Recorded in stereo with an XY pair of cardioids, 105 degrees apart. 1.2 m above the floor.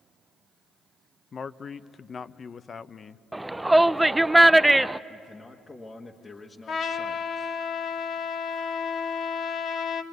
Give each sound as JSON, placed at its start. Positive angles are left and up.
{"t": 1.3, "sound": "a man speaking", "azimuth_deg": 40, "distance_m": 0.8}
{"t": 3.3, "sound": "a shout", "azimuth_deg": -10, "distance_m": 0.6}
{"t": 5.1, "sound": "a man speaking", "azimuth_deg": 20, "distance_m": 1.3}
{"t": 6.7, "sound": "a trumpet", "azimuth_deg": 55, "distance_m": 1.4}